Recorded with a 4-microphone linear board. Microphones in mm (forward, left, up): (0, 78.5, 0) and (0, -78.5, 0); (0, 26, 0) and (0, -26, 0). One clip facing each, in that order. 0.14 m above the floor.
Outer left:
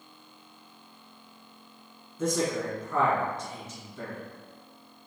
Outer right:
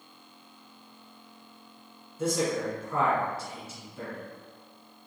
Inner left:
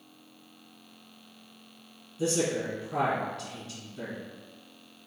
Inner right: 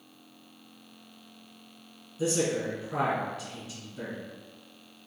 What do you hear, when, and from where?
2.2 s a man speaking: 5° right (ahead or behind), 1.6 m